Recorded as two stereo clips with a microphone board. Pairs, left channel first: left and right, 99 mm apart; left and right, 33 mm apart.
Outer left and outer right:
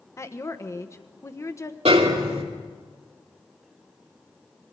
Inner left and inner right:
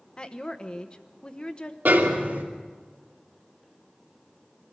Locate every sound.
0.2 s a woman speaking: 30° left (ahead or behind), 1.1 m
1.9 s a snare drum: 80° right, 3 m